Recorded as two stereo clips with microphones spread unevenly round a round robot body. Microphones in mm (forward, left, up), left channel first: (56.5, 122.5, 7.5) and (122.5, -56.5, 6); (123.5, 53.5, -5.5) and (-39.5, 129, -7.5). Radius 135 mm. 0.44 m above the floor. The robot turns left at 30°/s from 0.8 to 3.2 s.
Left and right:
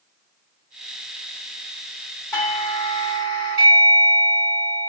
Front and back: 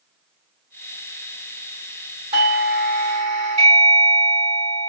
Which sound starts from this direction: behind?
A doorbell, at 2.3 s.